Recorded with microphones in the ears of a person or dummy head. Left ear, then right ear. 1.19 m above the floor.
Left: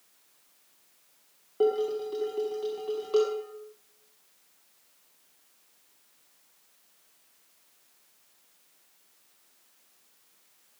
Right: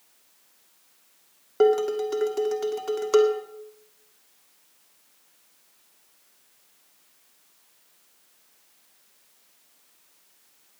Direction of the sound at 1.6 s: 65° right (ahead or behind).